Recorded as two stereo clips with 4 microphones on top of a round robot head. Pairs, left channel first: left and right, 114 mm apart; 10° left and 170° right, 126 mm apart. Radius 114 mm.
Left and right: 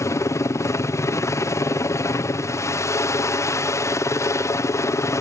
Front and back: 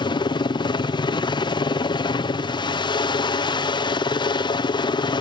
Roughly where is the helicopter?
Ahead left.